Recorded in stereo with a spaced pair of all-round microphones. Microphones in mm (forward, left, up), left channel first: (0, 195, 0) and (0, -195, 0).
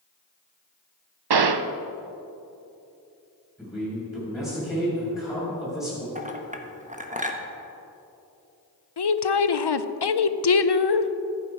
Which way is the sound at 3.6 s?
10° left (ahead or behind).